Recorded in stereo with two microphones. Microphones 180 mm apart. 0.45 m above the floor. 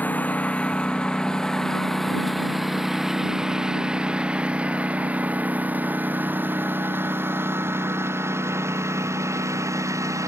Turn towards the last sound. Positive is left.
turn(degrees=-15)  # may be behind; listen again after turning